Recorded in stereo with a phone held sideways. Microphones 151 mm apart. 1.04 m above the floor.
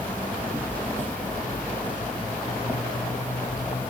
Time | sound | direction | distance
0.0 | an insect | 15° left (ahead or behind) | 3 m